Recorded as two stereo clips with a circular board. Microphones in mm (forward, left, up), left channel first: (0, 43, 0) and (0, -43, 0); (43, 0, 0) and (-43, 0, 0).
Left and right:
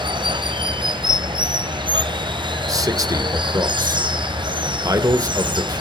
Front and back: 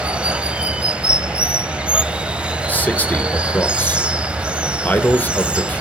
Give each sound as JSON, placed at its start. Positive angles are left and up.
{"t": 0.0, "sound": "running water", "azimuth_deg": -105, "distance_m": 0.9}
{"t": 2.7, "sound": "a man speaking", "azimuth_deg": -65, "distance_m": 1.4}